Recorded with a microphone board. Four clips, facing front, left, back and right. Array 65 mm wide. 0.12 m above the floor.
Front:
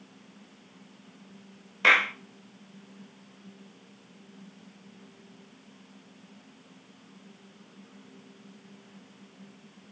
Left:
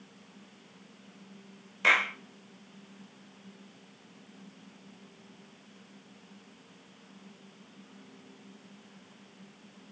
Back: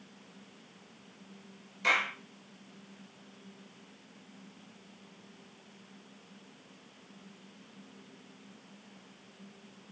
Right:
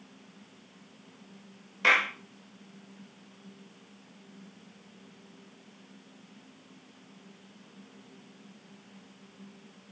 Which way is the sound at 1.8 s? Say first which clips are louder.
Right 1 dB, front 8 dB; 5° right.